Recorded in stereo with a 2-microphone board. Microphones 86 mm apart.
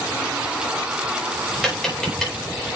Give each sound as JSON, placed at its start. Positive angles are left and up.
{"t": 1.6, "sound": "tapping", "side_deg": 5, "distance_m": 4.5}